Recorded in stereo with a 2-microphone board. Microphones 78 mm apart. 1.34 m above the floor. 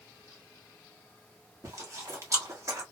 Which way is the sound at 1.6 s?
40° right (ahead or behind).